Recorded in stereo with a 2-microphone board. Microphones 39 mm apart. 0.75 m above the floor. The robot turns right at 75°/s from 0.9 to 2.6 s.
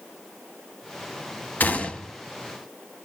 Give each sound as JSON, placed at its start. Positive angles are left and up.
{"t": 1.6, "sound": "a gunshot", "azimuth_deg": 130, "distance_m": 0.7}